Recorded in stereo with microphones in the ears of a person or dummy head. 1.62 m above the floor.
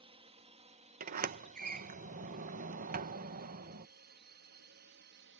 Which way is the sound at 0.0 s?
30° right (ahead or behind).